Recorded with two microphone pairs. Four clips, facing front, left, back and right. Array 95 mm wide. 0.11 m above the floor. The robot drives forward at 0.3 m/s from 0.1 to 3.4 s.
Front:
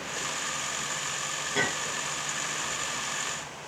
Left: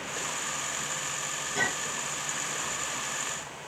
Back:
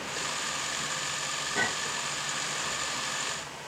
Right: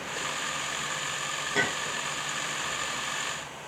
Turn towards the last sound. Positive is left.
turn(degrees=-95)